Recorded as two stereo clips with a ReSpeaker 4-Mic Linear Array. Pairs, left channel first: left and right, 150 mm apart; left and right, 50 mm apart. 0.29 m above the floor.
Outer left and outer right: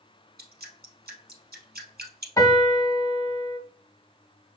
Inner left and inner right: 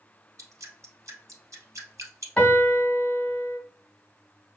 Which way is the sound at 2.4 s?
20° left (ahead or behind).